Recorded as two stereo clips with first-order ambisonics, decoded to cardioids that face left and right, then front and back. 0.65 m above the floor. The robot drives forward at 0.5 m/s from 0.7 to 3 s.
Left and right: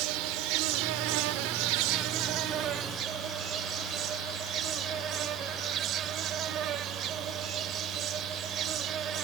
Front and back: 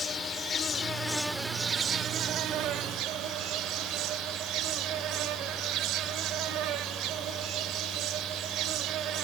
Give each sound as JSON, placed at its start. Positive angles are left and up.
{"t": 0.0, "sound": "an insect", "azimuth_deg": -70, "distance_m": 0.8}